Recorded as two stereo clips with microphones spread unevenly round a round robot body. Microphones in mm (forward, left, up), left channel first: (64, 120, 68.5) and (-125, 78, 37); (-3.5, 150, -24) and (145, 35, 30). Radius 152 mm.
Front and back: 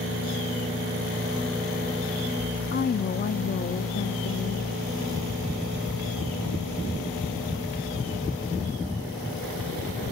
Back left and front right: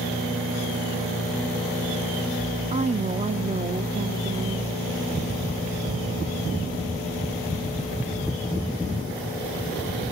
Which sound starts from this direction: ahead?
A woman speaking, at 2.7 s.